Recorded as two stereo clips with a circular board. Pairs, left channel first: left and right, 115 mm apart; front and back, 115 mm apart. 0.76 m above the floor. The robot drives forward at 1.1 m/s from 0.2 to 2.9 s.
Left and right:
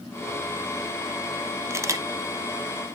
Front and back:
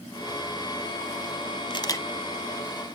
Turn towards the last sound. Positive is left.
turn(degrees=-150)